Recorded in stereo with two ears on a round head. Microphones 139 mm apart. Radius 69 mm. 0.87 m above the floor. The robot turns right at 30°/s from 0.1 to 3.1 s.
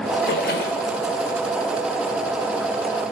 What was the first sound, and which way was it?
A splash, 80° left.